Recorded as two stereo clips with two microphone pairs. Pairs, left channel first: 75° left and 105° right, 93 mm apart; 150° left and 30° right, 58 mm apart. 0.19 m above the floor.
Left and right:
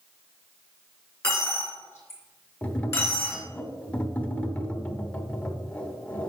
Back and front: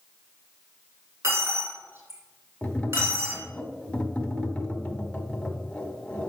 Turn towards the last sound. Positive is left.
turn(degrees=115)